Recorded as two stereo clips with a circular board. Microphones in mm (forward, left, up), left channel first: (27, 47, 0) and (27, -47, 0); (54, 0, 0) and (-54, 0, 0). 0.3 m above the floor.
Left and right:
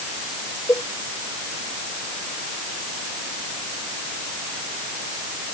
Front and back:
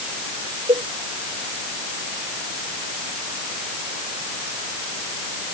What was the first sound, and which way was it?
A cowbell, 150° left.